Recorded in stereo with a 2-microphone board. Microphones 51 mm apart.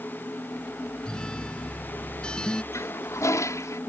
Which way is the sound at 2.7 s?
70° left (ahead or behind).